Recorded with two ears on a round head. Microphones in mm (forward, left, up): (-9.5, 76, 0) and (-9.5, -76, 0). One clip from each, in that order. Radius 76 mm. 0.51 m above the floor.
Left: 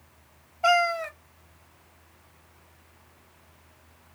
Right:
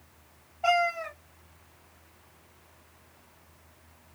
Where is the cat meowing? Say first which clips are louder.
Left 3 dB; 35° left (ahead or behind), 0.5 m.